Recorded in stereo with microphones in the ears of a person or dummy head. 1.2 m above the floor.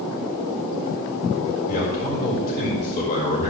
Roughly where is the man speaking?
Left.